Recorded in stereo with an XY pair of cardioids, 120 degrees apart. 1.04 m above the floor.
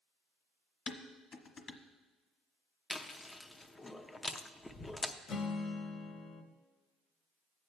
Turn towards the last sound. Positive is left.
turn(degrees=50)